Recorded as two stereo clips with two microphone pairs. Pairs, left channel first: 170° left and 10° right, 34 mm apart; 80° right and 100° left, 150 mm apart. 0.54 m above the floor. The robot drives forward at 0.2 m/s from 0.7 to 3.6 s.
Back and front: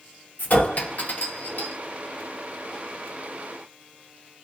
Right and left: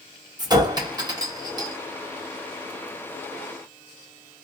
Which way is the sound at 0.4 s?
160° left.